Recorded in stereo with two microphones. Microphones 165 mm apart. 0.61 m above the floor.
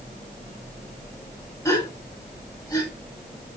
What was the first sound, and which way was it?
A gasp, 25° left (ahead or behind).